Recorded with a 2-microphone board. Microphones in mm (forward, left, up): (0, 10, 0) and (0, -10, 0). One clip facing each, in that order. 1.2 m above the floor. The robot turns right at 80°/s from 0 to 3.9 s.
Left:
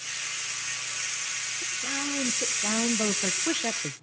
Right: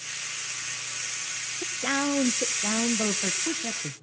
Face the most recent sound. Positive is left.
turn(degrees=95)